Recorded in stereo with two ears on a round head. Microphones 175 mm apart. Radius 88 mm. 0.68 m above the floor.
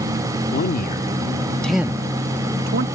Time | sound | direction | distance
0.5 | a man speaking | 50° left (ahead or behind) | ?